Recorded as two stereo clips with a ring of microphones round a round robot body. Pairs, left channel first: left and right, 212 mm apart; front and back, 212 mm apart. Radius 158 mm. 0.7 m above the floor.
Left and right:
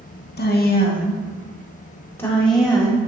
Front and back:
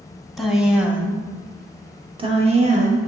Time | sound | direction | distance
0.4 | a woman speaking | 90° left | 1.5 m